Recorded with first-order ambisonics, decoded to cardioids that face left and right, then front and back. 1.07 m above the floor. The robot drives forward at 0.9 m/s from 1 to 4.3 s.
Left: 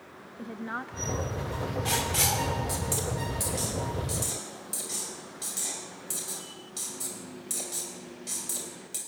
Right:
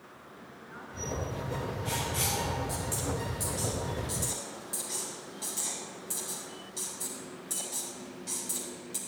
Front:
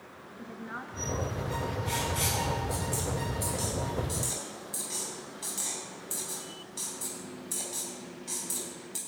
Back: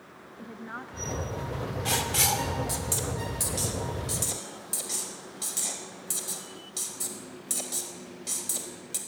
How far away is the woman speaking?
About 1.3 m.